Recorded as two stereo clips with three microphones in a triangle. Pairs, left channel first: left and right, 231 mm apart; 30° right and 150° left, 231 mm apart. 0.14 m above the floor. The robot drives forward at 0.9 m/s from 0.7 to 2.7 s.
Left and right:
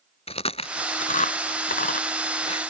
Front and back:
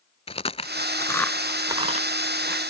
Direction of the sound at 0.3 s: 30° left.